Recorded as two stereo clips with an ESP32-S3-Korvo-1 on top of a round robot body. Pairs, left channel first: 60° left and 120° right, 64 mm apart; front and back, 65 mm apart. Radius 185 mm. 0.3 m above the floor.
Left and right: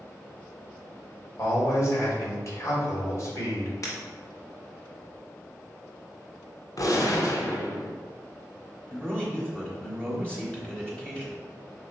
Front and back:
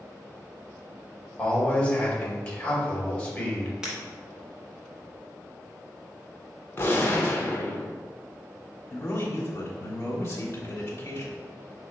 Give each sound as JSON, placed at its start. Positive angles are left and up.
{"t": 1.4, "sound": "a man speaking", "azimuth_deg": 65, "distance_m": 1.9}
{"t": 3.8, "sound": "breaking glass", "azimuth_deg": 100, "distance_m": 1.3}
{"t": 6.8, "sound": "a gunshot", "azimuth_deg": 50, "distance_m": 1.0}
{"t": 8.9, "sound": "a man speaking", "azimuth_deg": -10, "distance_m": 1.3}